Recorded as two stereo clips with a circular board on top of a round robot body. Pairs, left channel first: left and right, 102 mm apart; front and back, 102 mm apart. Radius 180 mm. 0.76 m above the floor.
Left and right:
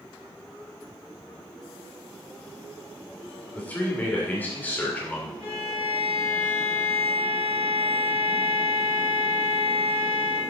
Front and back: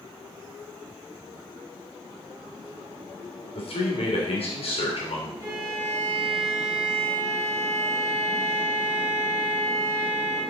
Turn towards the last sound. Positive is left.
turn(degrees=125)